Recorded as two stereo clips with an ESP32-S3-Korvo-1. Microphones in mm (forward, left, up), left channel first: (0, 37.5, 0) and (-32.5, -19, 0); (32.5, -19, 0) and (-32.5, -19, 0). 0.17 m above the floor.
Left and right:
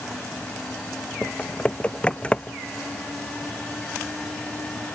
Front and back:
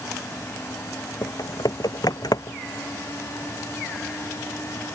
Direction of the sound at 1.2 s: 10° right.